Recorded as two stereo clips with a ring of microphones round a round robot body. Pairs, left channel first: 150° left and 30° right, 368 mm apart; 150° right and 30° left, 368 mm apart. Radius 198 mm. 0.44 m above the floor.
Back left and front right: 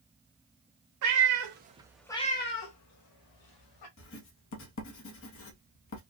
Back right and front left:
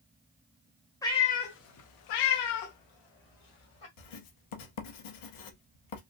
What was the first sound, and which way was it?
A cat meowing, 70° right.